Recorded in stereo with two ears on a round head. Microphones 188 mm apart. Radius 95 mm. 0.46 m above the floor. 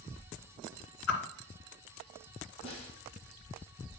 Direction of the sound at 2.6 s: 30° left (ahead or behind).